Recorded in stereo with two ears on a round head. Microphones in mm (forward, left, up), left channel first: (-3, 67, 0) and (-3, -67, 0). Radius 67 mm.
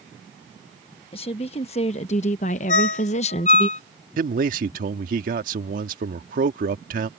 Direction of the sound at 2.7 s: 55° left (ahead or behind).